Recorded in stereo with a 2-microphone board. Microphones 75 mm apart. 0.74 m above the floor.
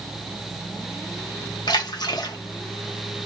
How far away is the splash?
About 0.7 m.